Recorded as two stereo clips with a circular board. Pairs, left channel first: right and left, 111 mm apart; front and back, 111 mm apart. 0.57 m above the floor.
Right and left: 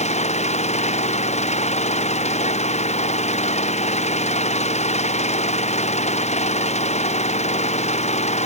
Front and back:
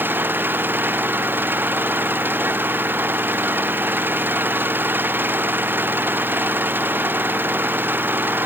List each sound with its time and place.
0.0 s an engine running: 105° right